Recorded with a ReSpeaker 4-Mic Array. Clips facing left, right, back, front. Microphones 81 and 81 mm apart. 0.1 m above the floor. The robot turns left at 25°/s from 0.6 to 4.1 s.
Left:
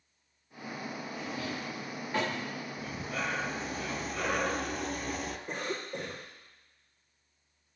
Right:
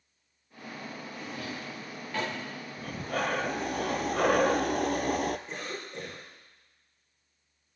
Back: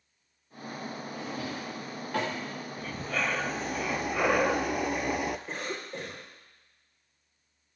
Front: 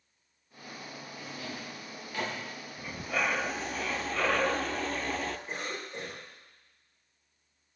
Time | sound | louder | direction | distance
1.1 | a drawer | left 1 dB, back 4 dB | 175° right | 5.5 m
2.8 | breathing | right 6 dB, front 1 dB | 70° right | 0.6 m
5.5 | a cough | left 3 dB, back 2 dB | 130° left | 7.5 m